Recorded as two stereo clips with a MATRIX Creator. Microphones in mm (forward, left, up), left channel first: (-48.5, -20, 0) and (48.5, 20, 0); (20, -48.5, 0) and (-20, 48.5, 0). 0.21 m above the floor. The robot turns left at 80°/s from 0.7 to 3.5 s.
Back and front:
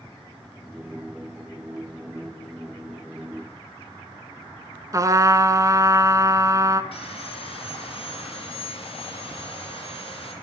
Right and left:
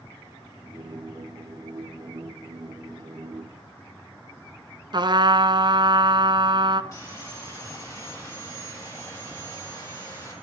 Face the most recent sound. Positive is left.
turn(degrees=-125)